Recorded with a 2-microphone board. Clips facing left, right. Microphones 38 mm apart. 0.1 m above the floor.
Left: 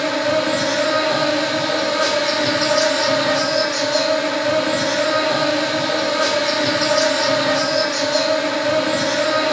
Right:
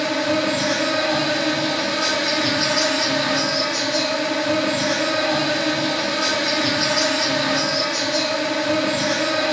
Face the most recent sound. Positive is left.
turn(degrees=60)  # may be behind; listen again after turning